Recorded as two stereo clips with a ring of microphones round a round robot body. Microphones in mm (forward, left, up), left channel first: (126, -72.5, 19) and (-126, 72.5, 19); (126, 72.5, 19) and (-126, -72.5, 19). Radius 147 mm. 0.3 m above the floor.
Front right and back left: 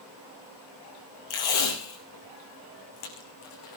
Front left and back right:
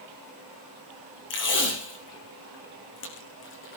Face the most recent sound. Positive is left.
turn(degrees=-20)